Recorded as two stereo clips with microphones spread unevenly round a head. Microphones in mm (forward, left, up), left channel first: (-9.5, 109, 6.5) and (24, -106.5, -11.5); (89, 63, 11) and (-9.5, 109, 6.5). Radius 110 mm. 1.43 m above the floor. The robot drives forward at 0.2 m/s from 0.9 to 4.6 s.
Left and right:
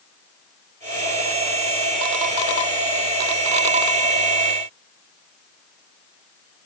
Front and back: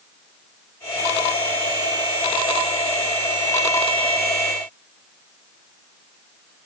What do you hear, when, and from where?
Only background noise.